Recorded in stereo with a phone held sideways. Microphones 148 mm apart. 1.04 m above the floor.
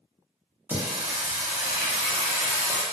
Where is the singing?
15° right (ahead or behind), 0.7 m.